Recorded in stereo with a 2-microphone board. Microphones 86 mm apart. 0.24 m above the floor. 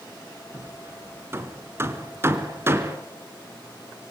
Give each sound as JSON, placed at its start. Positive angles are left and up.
{"t": 0.5, "sound": "hammering", "side_deg": -30, "distance_m": 2.5}